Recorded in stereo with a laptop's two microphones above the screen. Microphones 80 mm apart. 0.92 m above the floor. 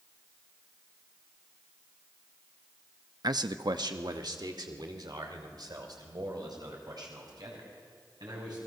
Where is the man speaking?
55° right (ahead or behind), 0.7 m; by 8.6 s 60° right (ahead or behind), 6.5 m.